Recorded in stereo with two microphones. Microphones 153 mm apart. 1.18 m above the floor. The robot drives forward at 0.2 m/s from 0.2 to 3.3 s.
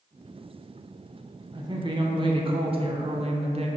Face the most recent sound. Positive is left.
turn(degrees=-40)  # may be behind; listen again after turning